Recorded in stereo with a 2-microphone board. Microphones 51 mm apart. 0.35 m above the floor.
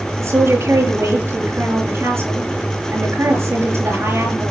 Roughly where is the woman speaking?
Right.